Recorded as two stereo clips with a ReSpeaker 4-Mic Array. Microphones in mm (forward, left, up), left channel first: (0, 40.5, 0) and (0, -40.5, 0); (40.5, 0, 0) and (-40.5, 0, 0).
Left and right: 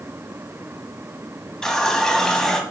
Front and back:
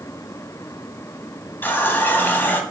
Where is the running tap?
15° left, 0.7 m.